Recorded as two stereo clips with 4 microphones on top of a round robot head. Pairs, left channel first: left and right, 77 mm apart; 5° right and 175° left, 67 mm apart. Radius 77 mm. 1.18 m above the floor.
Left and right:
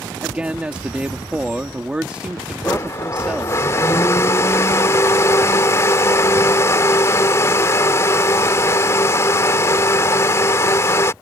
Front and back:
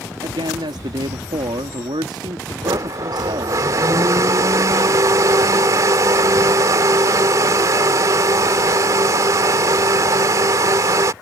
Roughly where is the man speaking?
Behind.